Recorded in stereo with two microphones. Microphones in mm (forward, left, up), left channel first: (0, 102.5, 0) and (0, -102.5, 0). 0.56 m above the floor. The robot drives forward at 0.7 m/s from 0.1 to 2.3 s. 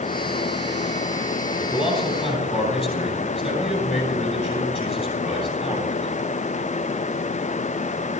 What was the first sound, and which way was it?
A man speaking, 25° left (ahead or behind).